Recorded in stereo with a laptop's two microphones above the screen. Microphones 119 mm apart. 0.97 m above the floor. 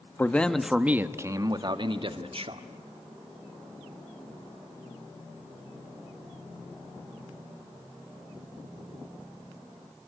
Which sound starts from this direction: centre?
A man speaking, at 0.2 s.